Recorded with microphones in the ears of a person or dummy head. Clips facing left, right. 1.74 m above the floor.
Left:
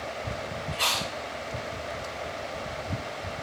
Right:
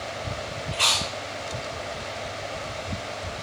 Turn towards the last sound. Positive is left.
turn(degrees=10)  # may be behind; listen again after turning